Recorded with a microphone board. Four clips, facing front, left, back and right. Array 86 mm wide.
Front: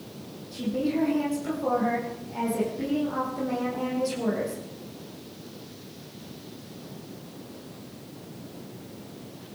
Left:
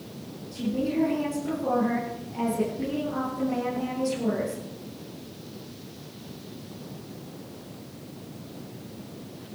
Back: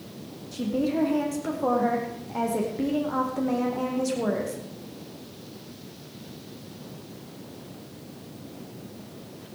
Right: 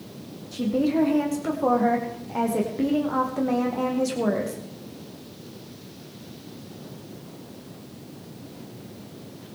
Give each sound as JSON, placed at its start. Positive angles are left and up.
{"t": 0.5, "sound": "a woman speaking", "azimuth_deg": -115, "distance_m": 6.0}